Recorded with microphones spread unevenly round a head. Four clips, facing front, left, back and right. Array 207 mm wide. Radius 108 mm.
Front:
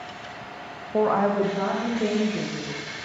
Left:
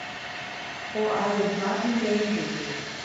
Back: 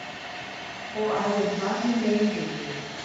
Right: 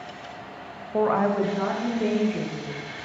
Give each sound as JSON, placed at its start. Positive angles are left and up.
{"t": 0.9, "sound": "a woman speaking", "azimuth_deg": -30, "distance_m": 0.9}